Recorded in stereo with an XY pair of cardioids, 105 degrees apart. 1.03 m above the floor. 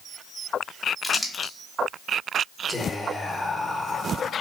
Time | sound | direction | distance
1.0 | crumpling | 15° left | 1.0 m
2.7 | whispering | 15° left | 0.7 m